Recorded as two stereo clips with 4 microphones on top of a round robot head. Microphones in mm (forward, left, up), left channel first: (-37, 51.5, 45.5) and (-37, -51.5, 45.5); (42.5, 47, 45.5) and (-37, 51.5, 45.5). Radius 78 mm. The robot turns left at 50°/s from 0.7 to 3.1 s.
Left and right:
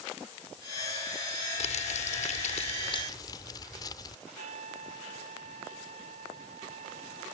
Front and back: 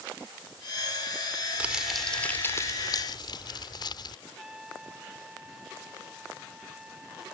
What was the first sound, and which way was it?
Crumpling, 100° left.